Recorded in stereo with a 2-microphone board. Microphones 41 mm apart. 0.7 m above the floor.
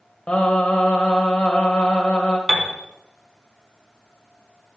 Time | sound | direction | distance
0.3 | singing | 35° left (ahead or behind) | 1.6 m
2.5 | a piano | 10° right (ahead or behind) | 1.3 m